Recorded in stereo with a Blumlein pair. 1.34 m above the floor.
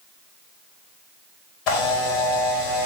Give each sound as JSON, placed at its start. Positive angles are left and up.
{"t": 1.7, "sound": "a camera shutter", "azimuth_deg": 40, "distance_m": 1.1}